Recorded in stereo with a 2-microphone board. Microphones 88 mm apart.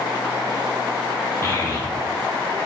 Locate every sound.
1.4 s a child speaking: 30° left (ahead or behind), 0.7 m; by 2.6 s 50° left (ahead or behind), 1.2 m